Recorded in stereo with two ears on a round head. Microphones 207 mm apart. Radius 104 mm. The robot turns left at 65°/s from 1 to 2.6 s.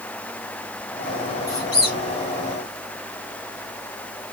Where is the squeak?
50° left (ahead or behind), 4 m; by 2.0 s 80° left, 4 m.